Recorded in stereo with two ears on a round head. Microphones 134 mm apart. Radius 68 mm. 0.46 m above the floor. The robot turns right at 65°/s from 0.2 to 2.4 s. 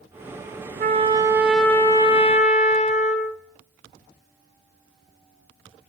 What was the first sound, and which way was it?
A trumpet, 50° right.